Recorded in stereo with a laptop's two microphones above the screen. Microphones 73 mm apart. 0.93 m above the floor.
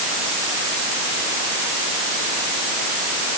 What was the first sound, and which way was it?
Only background noise.